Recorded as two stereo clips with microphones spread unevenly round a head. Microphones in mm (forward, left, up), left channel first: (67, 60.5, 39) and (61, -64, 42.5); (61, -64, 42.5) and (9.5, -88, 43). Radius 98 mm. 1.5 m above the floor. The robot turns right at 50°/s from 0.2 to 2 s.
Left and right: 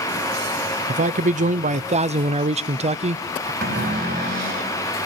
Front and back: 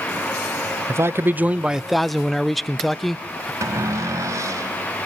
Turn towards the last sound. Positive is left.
turn(degrees=-130)